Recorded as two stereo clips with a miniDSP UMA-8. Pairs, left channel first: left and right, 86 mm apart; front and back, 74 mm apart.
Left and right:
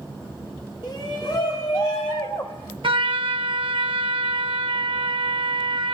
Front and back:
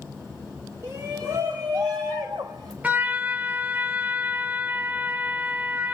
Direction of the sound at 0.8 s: 130° left.